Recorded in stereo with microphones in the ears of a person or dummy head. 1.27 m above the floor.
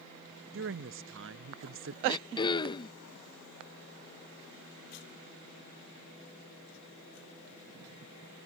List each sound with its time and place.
0.5 s a woman speaking: 60° right (ahead or behind)
2.1 s throat clearing: 25° left (ahead or behind)